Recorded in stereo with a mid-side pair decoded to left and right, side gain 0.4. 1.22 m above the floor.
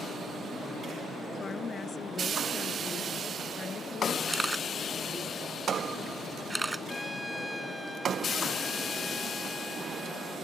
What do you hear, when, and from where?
1.4 s a woman speaking: 45° left
4.3 s a camera shutter: 20° right
6.9 s a trumpet: 5° left